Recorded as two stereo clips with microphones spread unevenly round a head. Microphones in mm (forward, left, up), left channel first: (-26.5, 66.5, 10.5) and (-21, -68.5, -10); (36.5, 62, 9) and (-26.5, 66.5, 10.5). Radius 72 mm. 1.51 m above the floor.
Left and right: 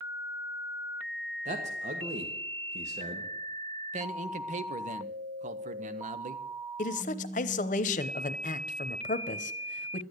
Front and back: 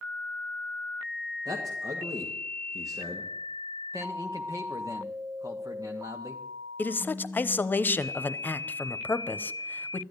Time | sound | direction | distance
1.4 | a man speaking | 125° right | 1.5 m
3.9 | a man speaking | 120° right | 0.9 m
6.8 | a man speaking | 55° left | 0.8 m